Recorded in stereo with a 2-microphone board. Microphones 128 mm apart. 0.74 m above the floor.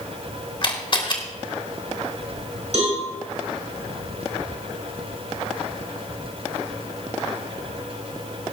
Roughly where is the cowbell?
Right.